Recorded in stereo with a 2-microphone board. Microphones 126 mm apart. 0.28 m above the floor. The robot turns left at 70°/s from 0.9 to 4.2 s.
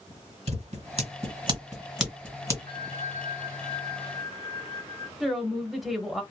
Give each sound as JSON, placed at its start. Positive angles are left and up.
{"t": 0.5, "sound": "scissors", "side_deg": -65, "distance_m": 1.8}
{"t": 2.7, "sound": "a bell", "azimuth_deg": 140, "distance_m": 1.7}
{"t": 5.2, "sound": "a woman speaking", "side_deg": 0, "distance_m": 0.9}